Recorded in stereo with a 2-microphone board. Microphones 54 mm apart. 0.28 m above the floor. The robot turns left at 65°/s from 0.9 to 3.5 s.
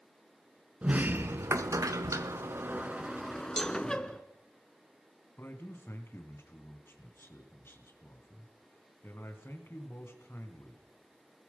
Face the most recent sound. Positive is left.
turn(degrees=45)  # may be behind; listen again after turning